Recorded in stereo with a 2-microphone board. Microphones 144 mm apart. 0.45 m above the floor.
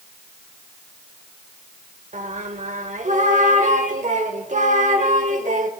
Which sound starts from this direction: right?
Singing, at 2.1 s.